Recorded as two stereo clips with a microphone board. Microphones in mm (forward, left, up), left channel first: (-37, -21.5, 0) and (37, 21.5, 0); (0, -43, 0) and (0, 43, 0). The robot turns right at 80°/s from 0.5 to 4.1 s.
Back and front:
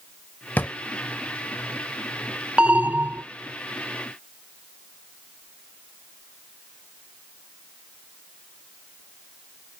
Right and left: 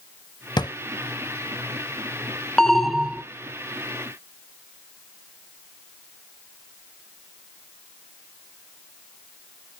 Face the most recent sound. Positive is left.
turn(degrees=100)